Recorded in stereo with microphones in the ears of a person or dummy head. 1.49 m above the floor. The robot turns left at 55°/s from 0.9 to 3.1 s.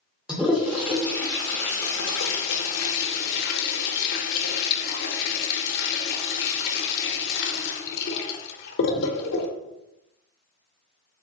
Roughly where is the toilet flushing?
Centre.